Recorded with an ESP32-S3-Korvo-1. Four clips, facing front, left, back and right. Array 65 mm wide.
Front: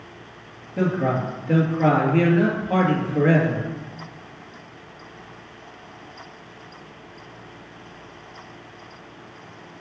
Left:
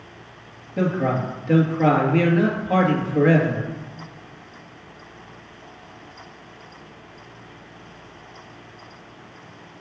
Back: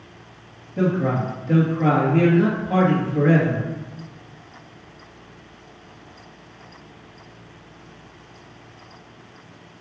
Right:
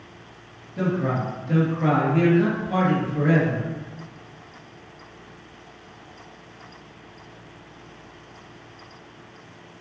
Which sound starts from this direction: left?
A man speaking, at 0.8 s.